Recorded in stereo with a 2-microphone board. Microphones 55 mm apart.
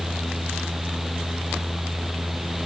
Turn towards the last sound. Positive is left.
No sound to turn to.